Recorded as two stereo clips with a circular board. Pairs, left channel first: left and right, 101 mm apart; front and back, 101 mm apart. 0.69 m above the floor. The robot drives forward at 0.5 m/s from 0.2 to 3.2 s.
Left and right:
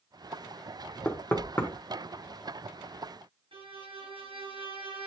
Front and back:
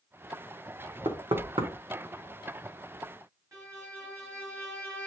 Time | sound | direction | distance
1.1 | knocking | 160° left | 1.5 m
3.5 | a violin | 120° right | 3.5 m